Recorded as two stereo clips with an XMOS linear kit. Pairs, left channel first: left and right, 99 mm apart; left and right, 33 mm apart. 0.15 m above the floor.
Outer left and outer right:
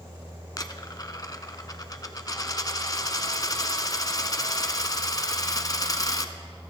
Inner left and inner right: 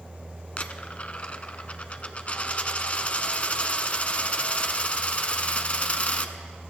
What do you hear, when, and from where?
0.6 s a dropped coin: 40° left (ahead or behind), 0.8 m